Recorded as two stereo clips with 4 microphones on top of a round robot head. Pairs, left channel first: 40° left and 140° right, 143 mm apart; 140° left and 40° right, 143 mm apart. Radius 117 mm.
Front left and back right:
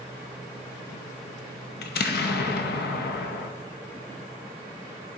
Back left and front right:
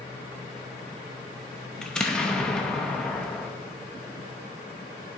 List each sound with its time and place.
1.8 s an explosion: 50° left, 0.7 m